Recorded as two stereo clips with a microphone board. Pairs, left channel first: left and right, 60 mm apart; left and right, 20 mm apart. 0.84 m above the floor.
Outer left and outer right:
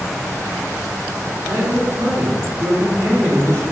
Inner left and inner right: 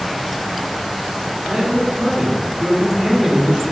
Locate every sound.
1.4 s a man speaking: 75° right (ahead or behind), 3 m